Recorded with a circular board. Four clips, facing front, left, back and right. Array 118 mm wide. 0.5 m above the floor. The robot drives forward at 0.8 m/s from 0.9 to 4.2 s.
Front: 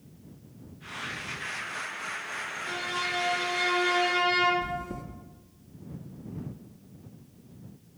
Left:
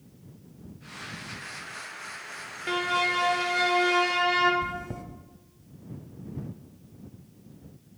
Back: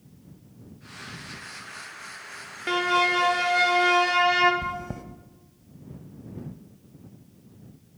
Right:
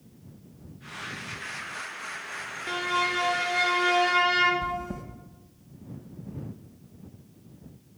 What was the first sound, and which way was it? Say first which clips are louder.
A violin: left 1 dB, back 12 dB; 170° left.